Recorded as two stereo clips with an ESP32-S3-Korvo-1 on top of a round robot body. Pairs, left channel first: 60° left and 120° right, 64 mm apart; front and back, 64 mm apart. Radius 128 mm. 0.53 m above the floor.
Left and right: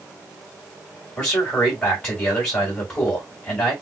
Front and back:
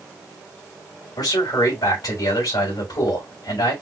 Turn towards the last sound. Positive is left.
turn(degrees=-5)